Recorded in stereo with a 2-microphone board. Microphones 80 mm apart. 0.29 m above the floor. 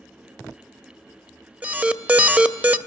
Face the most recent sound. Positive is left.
turn(degrees=-15)  # may be behind; listen again after turning